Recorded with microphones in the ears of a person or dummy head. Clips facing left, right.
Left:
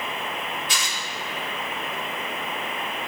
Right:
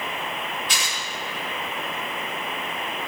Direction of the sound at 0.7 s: 60° right (ahead or behind).